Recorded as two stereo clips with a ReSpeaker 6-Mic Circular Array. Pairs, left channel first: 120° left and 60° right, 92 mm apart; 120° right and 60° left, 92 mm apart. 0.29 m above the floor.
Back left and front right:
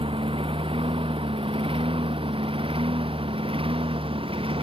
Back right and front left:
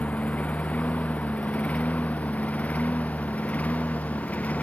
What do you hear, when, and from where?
0.0 s a lawn mower: 45° right